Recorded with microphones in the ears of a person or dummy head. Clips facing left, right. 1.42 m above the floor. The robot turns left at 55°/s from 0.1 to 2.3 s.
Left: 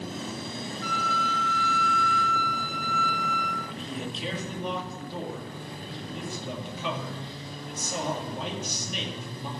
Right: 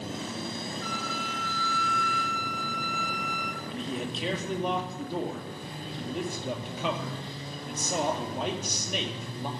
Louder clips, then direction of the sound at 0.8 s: Left 3 dB; 65° left.